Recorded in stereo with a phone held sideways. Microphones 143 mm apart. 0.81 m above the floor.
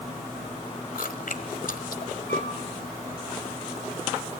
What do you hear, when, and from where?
0.9 s chewing: 75° left (ahead or behind), 1.3 m
2.3 s a flute: 65° right (ahead or behind), 2.5 m